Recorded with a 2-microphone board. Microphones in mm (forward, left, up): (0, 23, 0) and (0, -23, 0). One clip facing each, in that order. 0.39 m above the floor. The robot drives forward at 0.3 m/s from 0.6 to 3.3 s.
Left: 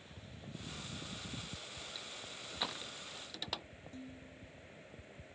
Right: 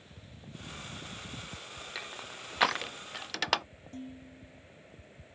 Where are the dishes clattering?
50° right (ahead or behind).